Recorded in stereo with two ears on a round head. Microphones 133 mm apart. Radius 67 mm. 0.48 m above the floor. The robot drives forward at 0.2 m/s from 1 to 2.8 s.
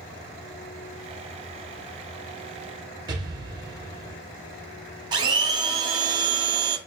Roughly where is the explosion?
Right.